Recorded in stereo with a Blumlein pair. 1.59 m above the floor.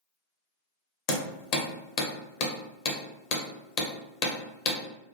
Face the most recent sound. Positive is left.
turn(degrees=40)